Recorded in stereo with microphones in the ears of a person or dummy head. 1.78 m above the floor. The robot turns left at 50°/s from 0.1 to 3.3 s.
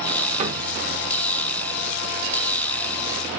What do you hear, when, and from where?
0.4 s a cupboard door: 40° right (ahead or behind), 1.0 m; by 0.6 s 25° right (ahead or behind), 1.0 m